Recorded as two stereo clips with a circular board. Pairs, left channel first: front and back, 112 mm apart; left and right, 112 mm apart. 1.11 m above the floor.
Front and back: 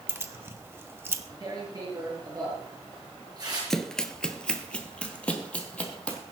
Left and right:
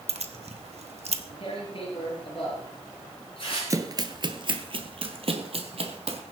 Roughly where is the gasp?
I don't hear a gasp.